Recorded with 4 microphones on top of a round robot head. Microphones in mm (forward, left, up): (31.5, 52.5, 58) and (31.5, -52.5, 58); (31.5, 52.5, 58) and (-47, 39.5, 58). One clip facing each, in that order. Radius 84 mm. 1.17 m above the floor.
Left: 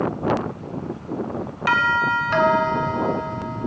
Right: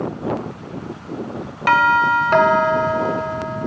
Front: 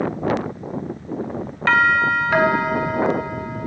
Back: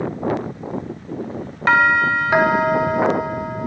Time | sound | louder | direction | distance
1.7 | a doorbell | right 6 dB, back 1 dB | 100° right | 1.9 m